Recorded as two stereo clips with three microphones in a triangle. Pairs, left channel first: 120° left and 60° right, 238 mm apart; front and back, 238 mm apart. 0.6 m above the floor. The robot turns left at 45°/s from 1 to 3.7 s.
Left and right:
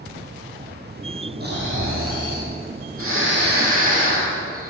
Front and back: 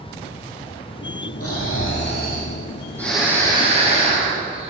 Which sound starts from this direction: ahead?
Snoring, at 1.4 s.